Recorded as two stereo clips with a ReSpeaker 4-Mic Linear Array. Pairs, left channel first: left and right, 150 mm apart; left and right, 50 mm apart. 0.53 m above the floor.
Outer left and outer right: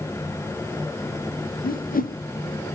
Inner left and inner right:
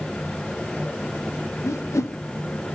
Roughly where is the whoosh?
Left.